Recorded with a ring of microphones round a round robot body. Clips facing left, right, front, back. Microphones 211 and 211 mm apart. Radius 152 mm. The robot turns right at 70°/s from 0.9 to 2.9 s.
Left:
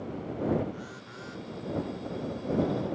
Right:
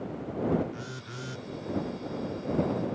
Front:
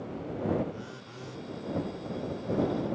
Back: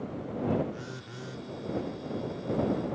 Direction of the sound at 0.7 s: 125° right.